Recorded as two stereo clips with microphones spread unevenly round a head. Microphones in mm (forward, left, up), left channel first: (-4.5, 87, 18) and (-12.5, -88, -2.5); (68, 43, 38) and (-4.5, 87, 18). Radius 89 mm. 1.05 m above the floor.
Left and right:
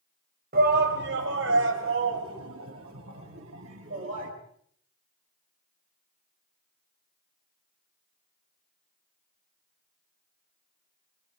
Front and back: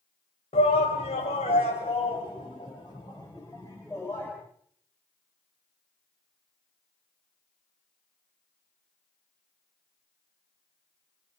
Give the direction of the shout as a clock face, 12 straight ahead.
2 o'clock.